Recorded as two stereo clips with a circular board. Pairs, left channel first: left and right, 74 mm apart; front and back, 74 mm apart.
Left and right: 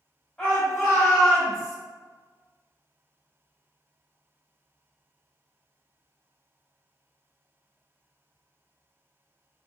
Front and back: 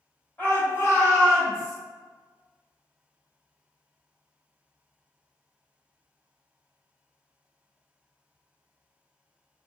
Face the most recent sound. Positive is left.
turn(degrees=5)